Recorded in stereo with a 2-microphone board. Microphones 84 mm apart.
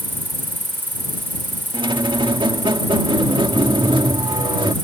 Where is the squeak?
75° right (ahead or behind).